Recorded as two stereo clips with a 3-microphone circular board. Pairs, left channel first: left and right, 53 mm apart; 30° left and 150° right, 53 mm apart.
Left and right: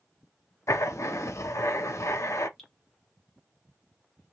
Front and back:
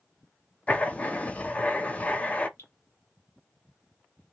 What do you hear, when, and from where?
0.7 s writing: 90° left, 0.5 m
2.6 s dripping: 10° left, 1.1 m